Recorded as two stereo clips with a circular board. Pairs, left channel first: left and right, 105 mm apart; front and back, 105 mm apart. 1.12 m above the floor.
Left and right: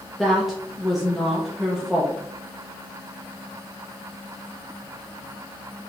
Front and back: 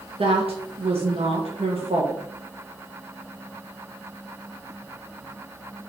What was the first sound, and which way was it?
A woman speaking, straight behind.